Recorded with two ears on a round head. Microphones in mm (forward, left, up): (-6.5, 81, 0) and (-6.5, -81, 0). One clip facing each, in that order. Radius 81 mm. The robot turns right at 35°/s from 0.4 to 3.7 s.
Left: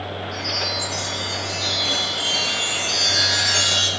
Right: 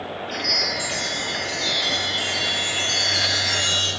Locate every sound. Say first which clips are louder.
0.3 s a chime: even; 65° right, 0.9 m; by 3.9 s 50° left, 0.9 m